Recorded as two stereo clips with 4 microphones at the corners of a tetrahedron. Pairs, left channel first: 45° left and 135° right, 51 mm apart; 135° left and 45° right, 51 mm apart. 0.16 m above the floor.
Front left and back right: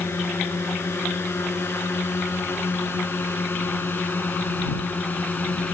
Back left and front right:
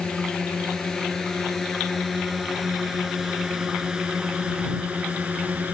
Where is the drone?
65° left; by 5.8 s straight ahead.